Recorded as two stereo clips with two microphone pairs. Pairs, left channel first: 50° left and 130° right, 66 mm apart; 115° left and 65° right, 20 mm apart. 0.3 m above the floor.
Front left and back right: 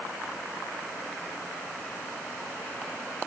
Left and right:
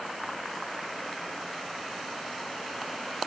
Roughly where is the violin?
I don't hear a violin.